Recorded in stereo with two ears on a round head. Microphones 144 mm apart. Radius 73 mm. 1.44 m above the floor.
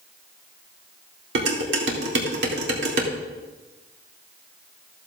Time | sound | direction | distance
1.4 | dishes clattering | 70° right (ahead or behind) | 2.5 m